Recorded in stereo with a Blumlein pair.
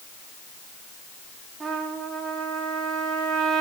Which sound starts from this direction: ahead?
A trumpet, at 1.6 s.